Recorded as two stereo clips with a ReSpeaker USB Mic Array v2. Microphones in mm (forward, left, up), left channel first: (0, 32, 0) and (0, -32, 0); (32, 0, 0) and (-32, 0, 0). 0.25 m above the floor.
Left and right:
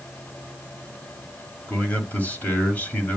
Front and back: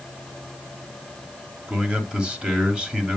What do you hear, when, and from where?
1.7 s a man speaking: 115° left, 1.5 m